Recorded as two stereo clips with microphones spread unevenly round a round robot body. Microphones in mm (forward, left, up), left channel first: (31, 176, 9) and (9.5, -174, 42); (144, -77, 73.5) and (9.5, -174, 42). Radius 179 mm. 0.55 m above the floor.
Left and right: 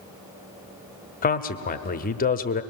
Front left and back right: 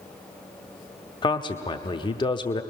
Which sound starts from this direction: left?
A man speaking, at 1.2 s.